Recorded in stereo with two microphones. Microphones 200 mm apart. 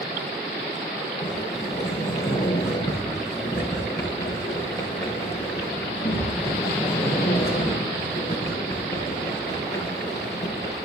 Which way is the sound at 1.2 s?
20° left (ahead or behind).